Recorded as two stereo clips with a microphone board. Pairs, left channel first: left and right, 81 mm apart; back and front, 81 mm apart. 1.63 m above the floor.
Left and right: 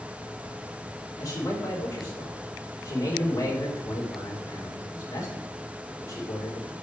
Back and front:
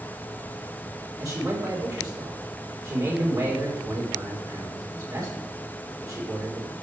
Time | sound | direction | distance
1.2 | a man speaking | 45° left | 4.5 m